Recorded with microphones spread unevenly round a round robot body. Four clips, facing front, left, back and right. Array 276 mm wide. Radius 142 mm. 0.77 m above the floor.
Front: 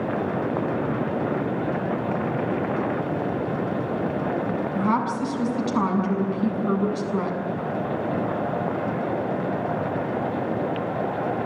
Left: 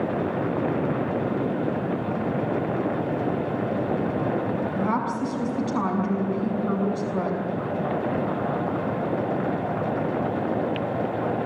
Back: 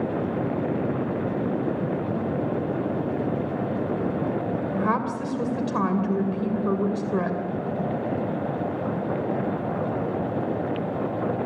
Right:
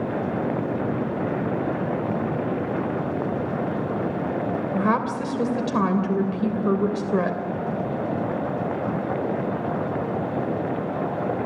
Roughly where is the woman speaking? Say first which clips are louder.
Right 2 dB, front 3 dB; right.